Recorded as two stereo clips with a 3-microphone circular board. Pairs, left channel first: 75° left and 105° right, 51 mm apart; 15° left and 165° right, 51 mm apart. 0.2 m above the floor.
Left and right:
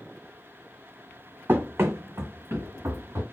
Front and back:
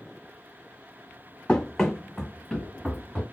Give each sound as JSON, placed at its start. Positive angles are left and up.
{"t": 1.5, "sound": "running footsteps", "azimuth_deg": -60, "distance_m": 0.5}